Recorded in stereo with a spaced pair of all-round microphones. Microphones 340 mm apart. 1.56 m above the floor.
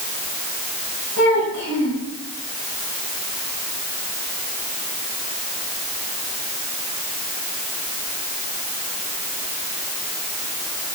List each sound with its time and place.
1.2 s a child speaking: 60° right (ahead or behind), 8.5 m